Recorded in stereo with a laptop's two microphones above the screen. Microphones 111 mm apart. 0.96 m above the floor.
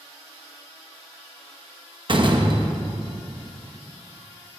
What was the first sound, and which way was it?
A door slam, 50° right (ahead or behind).